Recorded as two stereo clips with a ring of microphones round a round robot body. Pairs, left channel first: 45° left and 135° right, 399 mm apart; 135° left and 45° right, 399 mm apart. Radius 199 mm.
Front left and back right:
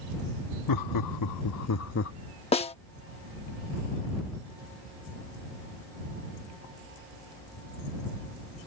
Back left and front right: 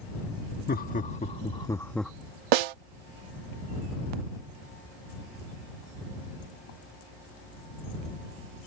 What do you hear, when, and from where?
0.7 s laughter: 70° left; by 2.1 s 45° left
2.5 s a snare drum: 30° right